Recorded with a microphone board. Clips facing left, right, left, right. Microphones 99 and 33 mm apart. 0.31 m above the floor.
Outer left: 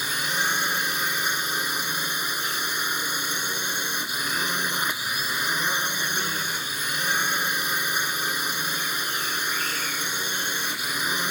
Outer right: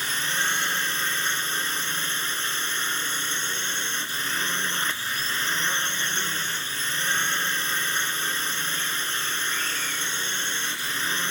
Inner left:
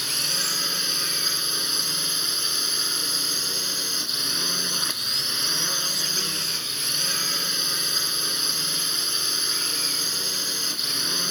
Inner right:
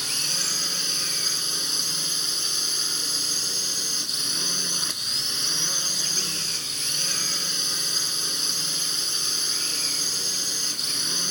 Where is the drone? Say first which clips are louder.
Outer left 1 dB, inner left 1 dB; 15° left (ahead or behind).